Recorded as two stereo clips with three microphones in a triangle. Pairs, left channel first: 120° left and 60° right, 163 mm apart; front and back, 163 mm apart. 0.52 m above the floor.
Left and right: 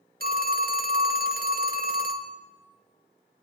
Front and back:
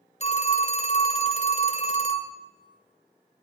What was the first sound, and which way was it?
A phone ringing, 45° right.